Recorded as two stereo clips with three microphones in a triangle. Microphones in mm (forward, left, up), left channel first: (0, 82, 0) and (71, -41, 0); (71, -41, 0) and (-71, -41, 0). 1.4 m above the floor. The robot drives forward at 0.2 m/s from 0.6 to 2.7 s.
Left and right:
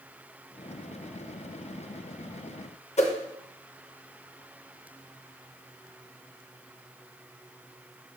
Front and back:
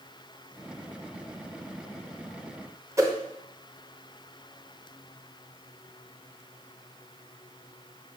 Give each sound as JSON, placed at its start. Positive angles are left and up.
{"t": 3.0, "sound": "a whoosh", "azimuth_deg": 120, "distance_m": 0.6}